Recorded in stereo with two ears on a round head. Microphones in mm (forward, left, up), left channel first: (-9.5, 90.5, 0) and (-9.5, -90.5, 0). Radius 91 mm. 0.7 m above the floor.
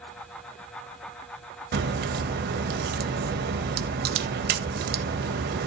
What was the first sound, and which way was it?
A crack, 50° right (ahead or behind).